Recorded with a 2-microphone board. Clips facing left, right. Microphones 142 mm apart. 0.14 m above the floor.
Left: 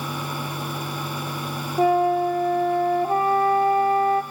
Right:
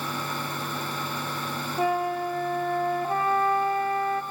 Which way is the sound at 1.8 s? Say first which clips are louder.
Left 8 dB; 25° left (ahead or behind).